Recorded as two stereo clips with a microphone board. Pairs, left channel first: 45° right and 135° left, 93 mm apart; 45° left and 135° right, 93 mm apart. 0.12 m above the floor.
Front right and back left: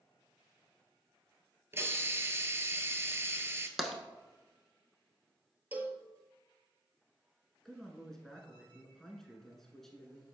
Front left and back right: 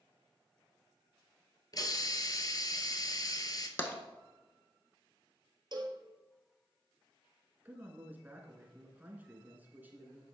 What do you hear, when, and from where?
1.7 s a hiss: 80° left, 0.7 m
3.8 s tapping: 45° left, 0.9 m
5.7 s a cowbell: 160° right, 0.8 m
7.7 s a man speaking: 125° right, 1.2 m